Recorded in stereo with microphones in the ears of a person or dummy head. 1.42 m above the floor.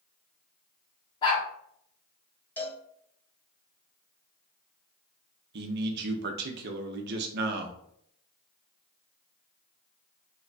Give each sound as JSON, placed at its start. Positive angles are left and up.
{"t": 1.2, "sound": "a dog barking", "side_deg": 25, "distance_m": 1.2}
{"t": 2.6, "sound": "a cowbell", "side_deg": 10, "distance_m": 1.2}
{"t": 5.5, "sound": "a man speaking", "side_deg": -60, "distance_m": 0.7}